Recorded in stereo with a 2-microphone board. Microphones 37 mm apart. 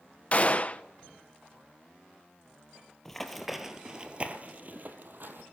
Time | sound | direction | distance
0.3 | a gunshot | 35° left (ahead or behind) | 0.8 m
3.0 | running footsteps | 10° left (ahead or behind) | 2 m